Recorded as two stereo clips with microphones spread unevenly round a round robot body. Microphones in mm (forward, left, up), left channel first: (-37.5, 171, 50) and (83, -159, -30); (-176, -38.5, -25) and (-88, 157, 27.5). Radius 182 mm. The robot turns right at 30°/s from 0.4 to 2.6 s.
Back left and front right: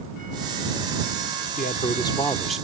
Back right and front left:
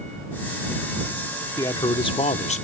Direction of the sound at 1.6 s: Straight behind.